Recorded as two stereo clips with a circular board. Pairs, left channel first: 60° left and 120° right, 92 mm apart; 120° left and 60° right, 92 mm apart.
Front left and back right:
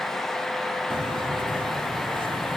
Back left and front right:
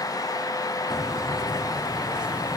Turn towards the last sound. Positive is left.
turn(degrees=-140)